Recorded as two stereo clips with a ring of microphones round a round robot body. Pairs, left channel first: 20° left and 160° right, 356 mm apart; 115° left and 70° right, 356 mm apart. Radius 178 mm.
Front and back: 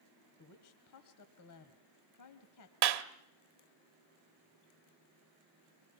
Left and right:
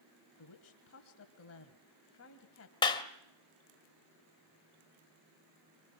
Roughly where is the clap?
Behind.